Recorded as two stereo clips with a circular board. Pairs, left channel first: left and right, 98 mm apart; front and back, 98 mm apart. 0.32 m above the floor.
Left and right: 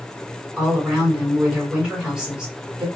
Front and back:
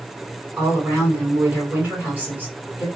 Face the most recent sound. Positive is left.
turn(degrees=-160)